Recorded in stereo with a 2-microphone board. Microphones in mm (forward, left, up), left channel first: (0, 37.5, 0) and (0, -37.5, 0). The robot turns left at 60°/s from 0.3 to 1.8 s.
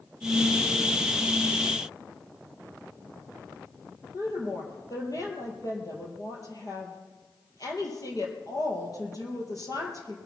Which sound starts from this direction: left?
A woman speaking, at 4.1 s.